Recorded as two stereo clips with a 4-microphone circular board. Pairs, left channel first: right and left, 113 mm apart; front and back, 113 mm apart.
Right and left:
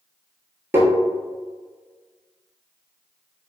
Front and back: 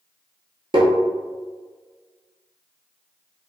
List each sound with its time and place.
0.7 s tapping: 155° left, 0.7 m